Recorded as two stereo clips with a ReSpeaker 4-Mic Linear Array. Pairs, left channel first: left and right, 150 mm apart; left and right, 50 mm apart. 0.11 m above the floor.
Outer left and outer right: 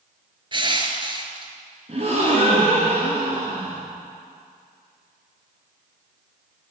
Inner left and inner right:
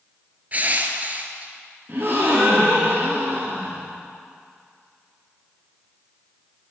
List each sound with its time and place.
0.5 s crushing: 35° right (ahead or behind), 0.7 m
1.9 s a gasp: 45° right (ahead or behind), 2 m